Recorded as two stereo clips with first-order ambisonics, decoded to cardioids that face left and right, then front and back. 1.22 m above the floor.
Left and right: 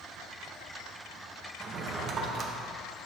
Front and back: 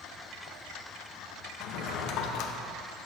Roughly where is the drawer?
Ahead right.